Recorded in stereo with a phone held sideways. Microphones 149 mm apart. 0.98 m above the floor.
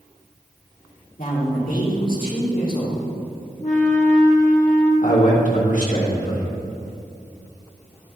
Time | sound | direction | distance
1.2 | a man speaking | 70° left (ahead or behind) | 2 m
3.6 | a flute | 60° left (ahead or behind) | 1.4 m
5.0 | a man speaking | 60° left (ahead or behind) | 1.6 m